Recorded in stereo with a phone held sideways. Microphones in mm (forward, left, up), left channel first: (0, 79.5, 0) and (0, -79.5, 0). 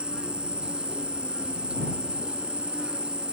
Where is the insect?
5° right (ahead or behind).